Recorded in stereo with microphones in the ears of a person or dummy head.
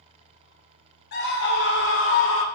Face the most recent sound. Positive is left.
turn(degrees=55)  # may be behind; listen again after turning